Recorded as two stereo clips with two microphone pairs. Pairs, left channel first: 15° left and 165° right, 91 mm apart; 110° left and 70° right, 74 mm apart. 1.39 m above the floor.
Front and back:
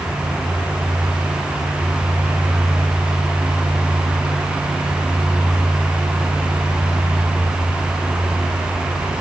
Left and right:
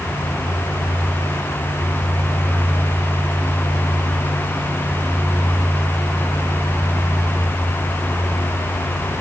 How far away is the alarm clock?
No alarm clock in this recording.